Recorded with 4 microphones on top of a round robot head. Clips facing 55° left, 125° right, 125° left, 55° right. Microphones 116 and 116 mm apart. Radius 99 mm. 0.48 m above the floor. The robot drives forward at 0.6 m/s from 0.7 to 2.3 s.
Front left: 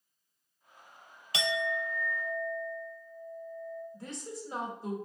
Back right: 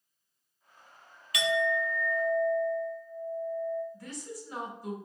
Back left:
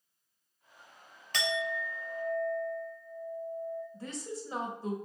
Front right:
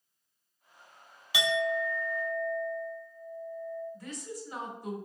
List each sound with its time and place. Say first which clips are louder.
1.3 s a clink: back right 4 dB, front right 5 dB; 20° left, 0.6 m; by 3.8 s 155° left, 0.6 m
3.9 s a woman speaking: even, back left 1 dB; 95° left, 1.5 m